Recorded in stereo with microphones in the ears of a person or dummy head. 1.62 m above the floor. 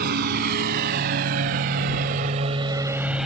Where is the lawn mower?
50° right (ahead or behind); by 3.3 s centre (ahead or behind).